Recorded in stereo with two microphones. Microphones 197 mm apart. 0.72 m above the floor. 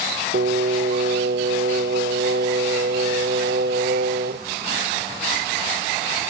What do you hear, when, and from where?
0.3 s singing: 60° right (ahead or behind), 0.6 m